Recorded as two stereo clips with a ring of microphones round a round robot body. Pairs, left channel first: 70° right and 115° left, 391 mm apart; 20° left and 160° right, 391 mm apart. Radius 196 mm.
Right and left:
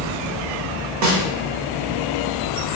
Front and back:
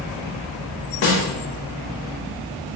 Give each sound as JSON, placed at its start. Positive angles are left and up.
{"t": 1.0, "sound": "a snare drum", "azimuth_deg": 75, "distance_m": 0.9}